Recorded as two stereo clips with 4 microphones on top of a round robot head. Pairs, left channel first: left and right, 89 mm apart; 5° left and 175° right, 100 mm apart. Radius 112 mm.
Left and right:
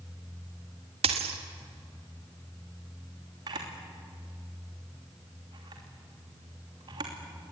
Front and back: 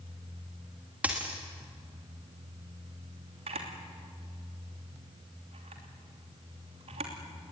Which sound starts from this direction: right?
A dropped coin, at 1.0 s.